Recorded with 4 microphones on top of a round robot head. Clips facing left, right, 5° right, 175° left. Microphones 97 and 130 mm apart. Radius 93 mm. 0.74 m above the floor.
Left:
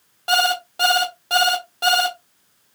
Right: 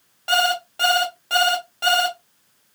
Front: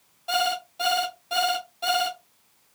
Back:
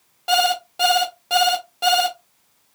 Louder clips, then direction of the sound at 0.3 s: Left 1 dB, back 6 dB; 160° left.